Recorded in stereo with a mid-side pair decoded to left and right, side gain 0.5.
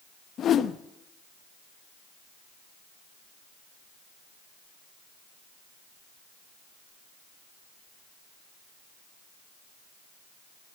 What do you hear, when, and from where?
0.4 s a whoosh: 55° left, 0.8 m